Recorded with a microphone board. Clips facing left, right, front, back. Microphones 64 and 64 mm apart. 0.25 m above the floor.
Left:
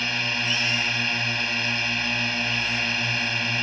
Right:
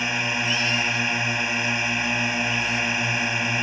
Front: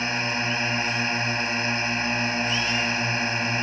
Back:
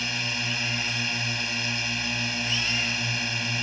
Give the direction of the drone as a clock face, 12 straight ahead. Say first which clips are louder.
Right 2 dB, front 5 dB; 1 o'clock.